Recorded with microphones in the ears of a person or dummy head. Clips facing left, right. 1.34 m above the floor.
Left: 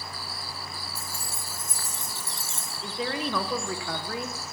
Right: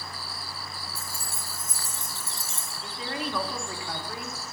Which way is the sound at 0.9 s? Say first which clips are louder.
Left 1 dB; 30° right (ahead or behind).